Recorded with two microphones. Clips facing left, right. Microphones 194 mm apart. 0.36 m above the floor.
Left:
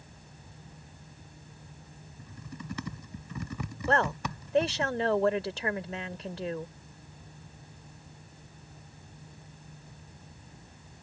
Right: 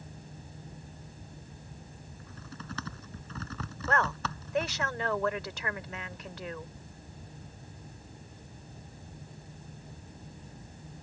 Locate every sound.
2.2 s typing on a keyboard: 15° left (ahead or behind)
3.9 s a woman speaking: 30° left (ahead or behind)